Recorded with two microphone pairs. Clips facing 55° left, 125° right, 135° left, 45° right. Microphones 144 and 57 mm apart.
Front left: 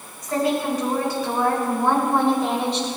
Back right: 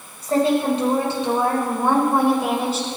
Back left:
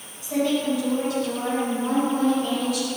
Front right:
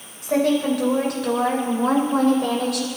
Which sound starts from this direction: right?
A woman speaking, at 0.2 s.